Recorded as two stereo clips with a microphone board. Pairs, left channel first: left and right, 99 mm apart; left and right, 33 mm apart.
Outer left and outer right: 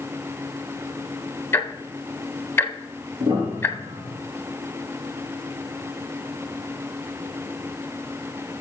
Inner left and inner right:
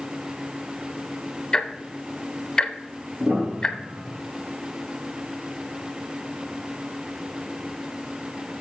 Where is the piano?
60° right (ahead or behind), 3 m.